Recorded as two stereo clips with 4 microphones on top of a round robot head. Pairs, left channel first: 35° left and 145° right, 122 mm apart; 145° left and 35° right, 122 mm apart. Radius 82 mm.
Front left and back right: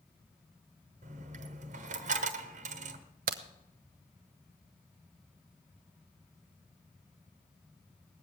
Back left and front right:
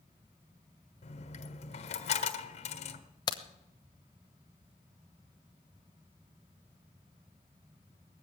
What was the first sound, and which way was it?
A dropped coin, 175° right.